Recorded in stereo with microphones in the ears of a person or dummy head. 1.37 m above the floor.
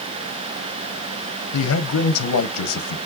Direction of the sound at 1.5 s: 80° left.